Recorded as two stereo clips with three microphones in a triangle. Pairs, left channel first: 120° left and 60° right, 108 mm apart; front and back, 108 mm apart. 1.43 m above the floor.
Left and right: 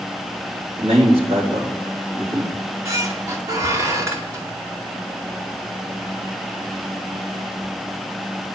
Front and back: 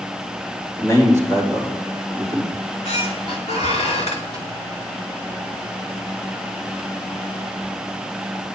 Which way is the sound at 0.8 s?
60° right.